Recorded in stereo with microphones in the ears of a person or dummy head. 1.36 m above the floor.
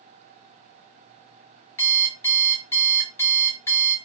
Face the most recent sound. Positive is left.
turn(degrees=15)  # may be behind; listen again after turning